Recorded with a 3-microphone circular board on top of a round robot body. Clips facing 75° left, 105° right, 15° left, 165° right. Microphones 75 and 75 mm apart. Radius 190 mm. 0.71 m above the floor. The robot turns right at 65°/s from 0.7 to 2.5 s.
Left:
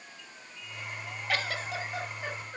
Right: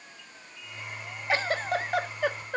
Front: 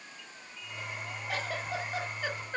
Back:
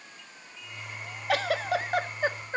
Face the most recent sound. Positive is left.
turn(degrees=-95)